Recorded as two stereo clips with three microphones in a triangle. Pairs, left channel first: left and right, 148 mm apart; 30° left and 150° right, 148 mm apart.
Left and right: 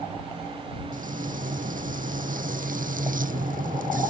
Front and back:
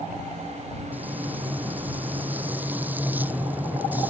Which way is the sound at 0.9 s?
70° right.